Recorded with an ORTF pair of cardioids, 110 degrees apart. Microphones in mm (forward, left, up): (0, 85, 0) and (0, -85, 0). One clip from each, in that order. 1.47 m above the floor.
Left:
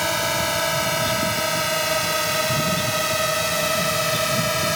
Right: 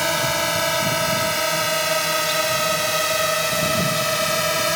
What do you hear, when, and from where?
0.0 s a drone: 25° right; by 4.8 s 20° right